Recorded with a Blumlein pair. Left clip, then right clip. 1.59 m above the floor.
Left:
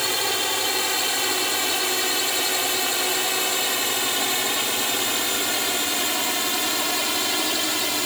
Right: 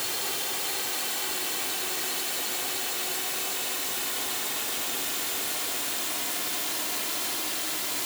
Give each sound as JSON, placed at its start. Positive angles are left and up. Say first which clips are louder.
{"t": 0.0, "sound": "a drone", "louder": "left 9 dB", "azimuth_deg": 60}